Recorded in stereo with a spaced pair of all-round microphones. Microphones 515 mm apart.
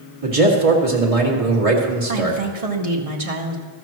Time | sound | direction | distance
0.2 | a man speaking | 85° right | 2 m
2.1 | a woman speaking | 85° right | 1.6 m